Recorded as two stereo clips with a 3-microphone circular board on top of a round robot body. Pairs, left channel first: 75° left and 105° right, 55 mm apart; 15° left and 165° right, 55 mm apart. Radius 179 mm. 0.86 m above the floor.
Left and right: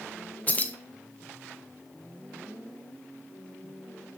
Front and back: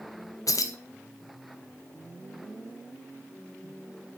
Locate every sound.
0.5 s keys jangling: 15° left, 0.6 m